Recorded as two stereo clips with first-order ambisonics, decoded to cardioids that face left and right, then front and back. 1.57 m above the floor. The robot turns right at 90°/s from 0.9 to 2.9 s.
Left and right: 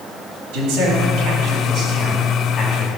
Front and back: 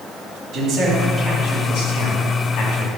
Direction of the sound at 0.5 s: 115° right.